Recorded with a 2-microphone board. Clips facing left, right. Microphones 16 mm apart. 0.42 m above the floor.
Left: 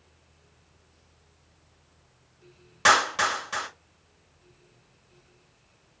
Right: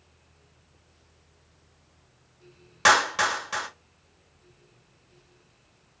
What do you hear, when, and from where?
2.9 s a clap: 10° right (ahead or behind), 1.7 m